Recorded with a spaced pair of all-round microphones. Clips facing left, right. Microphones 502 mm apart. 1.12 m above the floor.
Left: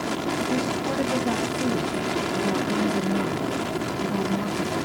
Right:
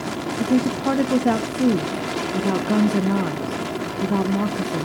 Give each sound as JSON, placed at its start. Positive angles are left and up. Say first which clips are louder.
{"t": 0.4, "sound": "a woman speaking", "louder": "right 10 dB", "side_deg": -85, "distance_m": 0.6}